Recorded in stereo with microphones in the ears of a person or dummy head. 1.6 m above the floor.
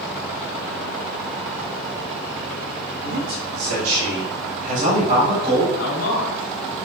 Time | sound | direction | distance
3.0 | a man speaking | 75° right (ahead or behind) | 1.7 m
5.8 | a man speaking | 85° left | 1.9 m